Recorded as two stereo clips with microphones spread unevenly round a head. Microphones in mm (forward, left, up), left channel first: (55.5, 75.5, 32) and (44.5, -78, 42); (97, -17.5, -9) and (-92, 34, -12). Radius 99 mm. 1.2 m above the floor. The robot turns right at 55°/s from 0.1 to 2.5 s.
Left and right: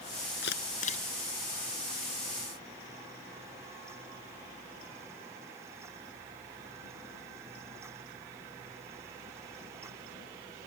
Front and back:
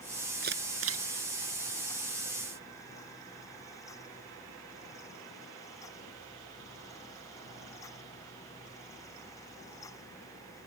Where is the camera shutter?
120° left; by 1.1 s 150° left.